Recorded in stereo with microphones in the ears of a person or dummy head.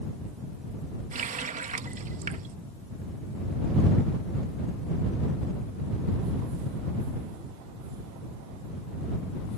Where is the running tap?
40° right (ahead or behind).